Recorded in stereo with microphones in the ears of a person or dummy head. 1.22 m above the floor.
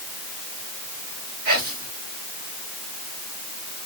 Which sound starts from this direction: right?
Whispering, at 1.4 s.